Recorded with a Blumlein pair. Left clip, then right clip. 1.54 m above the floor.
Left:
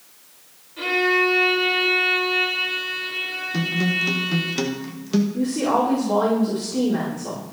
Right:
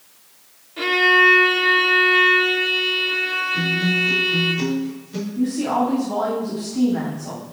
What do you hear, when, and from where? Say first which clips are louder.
0.8 s a violin: right 5 dB; 20° right, 2 m
3.5 s a guitar: right 3 dB; 55° left, 1.6 m
5.3 s a woman speaking: right 1 dB; 55° left, 4.5 m